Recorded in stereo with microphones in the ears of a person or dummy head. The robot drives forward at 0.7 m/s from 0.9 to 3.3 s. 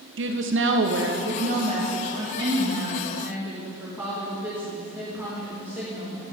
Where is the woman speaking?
60° right (ahead or behind), 0.6 m; by 6.2 s 15° right (ahead or behind), 1.8 m.